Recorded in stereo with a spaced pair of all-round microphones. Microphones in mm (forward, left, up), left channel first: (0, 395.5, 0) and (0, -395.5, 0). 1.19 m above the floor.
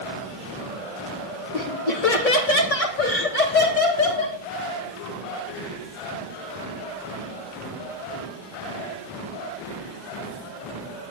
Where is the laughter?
70° left (ahead or behind), 2.5 m; by 4.4 s 50° left (ahead or behind), 4 m.